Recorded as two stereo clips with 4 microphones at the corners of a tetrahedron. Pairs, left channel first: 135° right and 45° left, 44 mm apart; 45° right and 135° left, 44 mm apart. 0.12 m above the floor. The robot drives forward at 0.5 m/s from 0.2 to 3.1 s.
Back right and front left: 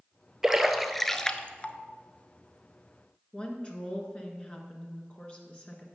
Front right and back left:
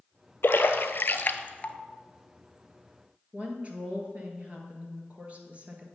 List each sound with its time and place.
0.4 s a splash: 35° right, 0.8 m; by 1.8 s 95° right, 0.5 m
3.3 s a woman speaking: 175° left, 1.6 m